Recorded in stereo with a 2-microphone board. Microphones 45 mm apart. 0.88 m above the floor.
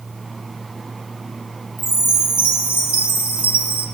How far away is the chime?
About 3 m.